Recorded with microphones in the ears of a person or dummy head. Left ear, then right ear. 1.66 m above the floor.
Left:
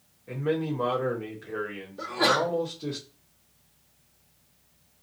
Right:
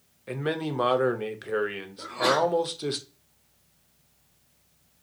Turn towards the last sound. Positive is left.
turn(degrees=60)  # may be behind; listen again after turning